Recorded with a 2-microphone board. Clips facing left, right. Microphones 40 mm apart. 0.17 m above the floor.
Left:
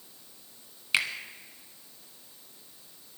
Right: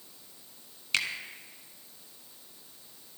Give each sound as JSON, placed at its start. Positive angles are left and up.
{"t": 0.9, "sound": "a finger snap", "side_deg": 15, "distance_m": 1.4}